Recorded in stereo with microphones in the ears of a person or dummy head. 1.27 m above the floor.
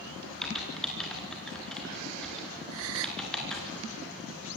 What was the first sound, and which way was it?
Typing on a keyboard, centre (ahead or behind).